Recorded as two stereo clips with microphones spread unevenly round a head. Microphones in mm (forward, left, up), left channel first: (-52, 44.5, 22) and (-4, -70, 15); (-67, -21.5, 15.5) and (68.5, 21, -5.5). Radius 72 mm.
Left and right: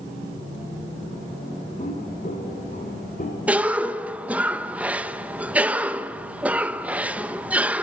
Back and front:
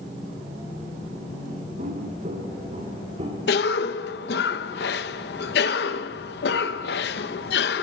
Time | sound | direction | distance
1.8 | footsteps | 65° left | 4.5 m
3.5 | a cough | 145° right | 1.1 m